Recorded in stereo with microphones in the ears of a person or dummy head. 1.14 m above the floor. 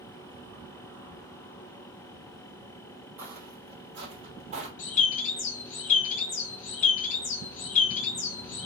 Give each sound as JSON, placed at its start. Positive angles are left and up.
{"t": 3.2, "sound": "footsteps", "side_deg": -10, "distance_m": 1.9}
{"t": 4.8, "sound": "a bird", "side_deg": 35, "distance_m": 1.1}